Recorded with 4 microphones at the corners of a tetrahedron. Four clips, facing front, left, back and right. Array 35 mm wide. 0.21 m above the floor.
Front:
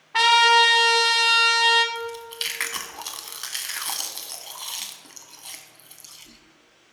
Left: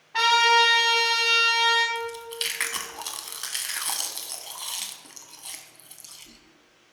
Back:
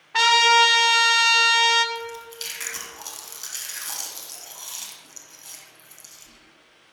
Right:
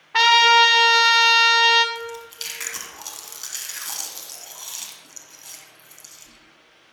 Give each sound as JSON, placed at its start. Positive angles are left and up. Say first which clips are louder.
{"t": 0.1, "sound": "a trumpet", "louder": "right 5 dB, even", "azimuth_deg": -80, "distance_m": 0.9}
{"t": 1.9, "sound": "chewing", "louder": "left 2 dB, front 3 dB", "azimuth_deg": 30, "distance_m": 1.2}